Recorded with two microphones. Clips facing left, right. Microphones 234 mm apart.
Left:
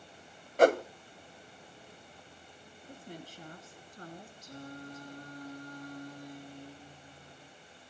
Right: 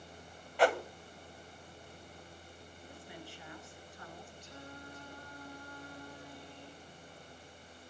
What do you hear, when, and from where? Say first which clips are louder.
0.6 s a whoosh: left 6 dB; 45° left (ahead or behind), 0.6 m
2.9 s a woman speaking: left 5 dB; 45° left (ahead or behind), 3.5 m
4.4 s singing: left 8 dB; 45° left (ahead or behind), 2 m